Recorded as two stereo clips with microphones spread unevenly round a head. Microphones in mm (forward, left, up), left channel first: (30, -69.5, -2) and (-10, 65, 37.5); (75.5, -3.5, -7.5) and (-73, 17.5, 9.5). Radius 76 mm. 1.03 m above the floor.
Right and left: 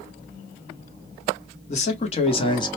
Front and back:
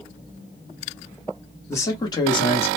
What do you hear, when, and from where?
1.7 s a man speaking: 75° right, 1.0 m; by 2.8 s 35° right, 0.8 m